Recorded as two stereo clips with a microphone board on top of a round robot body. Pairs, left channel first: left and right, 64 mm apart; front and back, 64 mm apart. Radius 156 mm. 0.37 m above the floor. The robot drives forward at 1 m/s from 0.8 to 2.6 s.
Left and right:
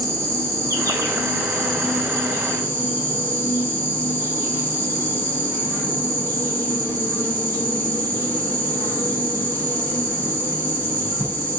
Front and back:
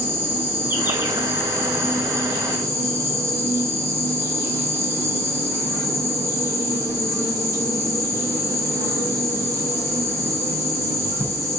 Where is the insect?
135° right, 6 m; by 11.6 s 145° right, 7.5 m.